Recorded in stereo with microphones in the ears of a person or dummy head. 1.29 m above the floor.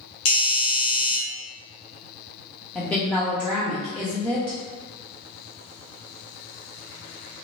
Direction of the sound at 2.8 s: 5° left (ahead or behind).